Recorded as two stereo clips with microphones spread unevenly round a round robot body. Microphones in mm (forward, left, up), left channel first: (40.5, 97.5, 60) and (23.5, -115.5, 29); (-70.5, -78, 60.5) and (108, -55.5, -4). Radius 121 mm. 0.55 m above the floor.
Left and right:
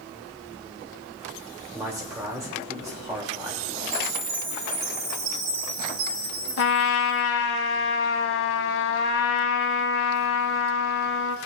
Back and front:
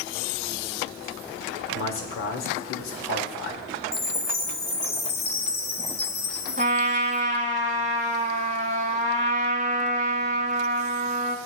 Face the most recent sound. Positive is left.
turn(degrees=80)